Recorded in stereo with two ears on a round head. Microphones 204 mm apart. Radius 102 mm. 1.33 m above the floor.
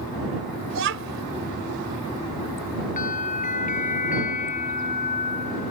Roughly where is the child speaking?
Right.